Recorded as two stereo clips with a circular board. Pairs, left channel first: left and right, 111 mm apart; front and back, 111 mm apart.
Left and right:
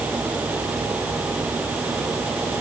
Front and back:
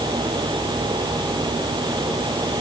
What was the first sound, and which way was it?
Only background noise.